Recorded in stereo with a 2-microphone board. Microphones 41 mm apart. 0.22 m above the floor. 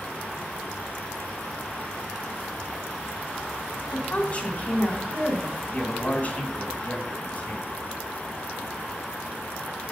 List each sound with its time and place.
3.9 s a woman speaking: 30° left (ahead or behind), 1.4 m
5.7 s a man speaking: 35° left (ahead or behind), 1.4 m